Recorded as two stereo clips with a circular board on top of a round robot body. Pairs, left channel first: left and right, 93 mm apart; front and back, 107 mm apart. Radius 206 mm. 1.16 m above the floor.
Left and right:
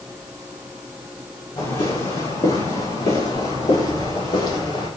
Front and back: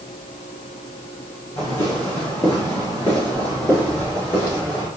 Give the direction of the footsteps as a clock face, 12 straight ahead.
10 o'clock.